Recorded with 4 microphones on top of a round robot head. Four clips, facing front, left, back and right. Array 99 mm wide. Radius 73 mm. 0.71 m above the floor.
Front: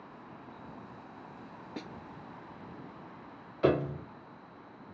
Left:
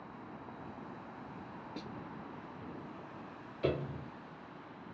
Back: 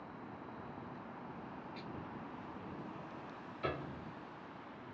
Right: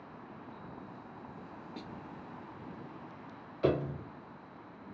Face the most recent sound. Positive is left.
turn(degrees=-15)